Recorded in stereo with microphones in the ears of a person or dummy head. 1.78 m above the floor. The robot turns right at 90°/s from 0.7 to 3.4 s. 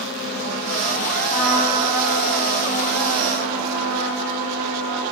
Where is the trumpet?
25° left, 1.8 m; by 5.0 s 145° right, 1.8 m.